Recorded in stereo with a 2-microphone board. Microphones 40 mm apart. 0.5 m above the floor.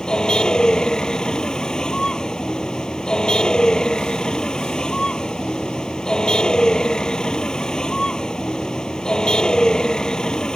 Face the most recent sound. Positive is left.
turn(degrees=20)  # may be behind; listen again after turning